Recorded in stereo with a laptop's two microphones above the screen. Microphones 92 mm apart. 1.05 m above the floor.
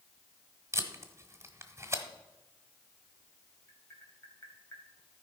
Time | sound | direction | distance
0.7 | tape being pulled | 30° right (ahead or behind) | 1.1 m
3.7 | tapping | 30° left (ahead or behind) | 1.7 m